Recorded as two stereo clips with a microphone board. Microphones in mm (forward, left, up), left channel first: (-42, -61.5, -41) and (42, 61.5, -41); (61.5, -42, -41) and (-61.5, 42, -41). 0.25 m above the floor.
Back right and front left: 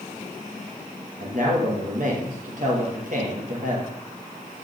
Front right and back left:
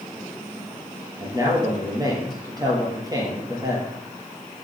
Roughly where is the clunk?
No clunk in this recording.